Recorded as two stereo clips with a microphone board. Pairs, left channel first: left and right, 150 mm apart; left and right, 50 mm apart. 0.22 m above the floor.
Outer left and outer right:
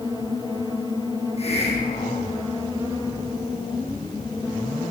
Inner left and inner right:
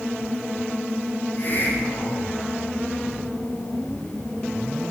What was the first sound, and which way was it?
A hiss, 45° left (ahead or behind).